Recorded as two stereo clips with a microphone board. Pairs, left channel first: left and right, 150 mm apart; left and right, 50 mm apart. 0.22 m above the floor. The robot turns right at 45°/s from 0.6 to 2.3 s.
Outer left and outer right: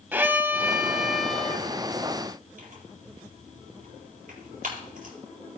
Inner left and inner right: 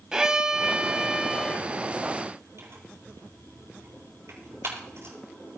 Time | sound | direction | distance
0.1 | a violin | 15° right (ahead or behind) | 0.7 m
2.6 | tearing paper | 65° right (ahead or behind) | 6 m